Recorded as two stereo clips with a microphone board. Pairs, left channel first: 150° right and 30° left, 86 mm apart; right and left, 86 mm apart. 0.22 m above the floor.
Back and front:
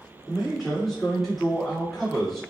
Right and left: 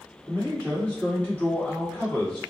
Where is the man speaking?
65° right, 1.6 m.